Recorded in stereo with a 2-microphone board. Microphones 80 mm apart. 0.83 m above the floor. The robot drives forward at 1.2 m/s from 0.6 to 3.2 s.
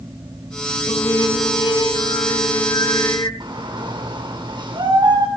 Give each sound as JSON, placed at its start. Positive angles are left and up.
{"t": 0.9, "sound": "singing", "side_deg": 60, "distance_m": 3.0}
{"t": 3.4, "sound": "a shout", "side_deg": -75, "distance_m": 3.0}